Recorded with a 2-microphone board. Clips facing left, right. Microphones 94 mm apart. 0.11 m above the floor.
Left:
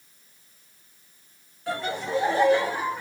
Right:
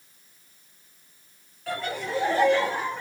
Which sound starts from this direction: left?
Laughter, at 1.7 s.